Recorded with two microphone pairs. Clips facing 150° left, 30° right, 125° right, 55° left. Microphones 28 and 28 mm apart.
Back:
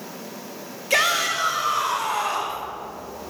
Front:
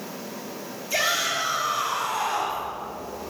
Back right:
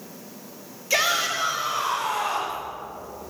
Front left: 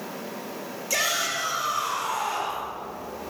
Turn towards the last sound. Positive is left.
turn(degrees=-170)